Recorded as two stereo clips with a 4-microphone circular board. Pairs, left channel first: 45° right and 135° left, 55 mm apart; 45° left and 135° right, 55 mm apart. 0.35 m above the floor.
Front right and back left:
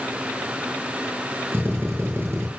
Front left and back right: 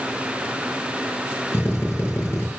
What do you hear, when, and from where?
1.5 s a drill: 90° left, 6 m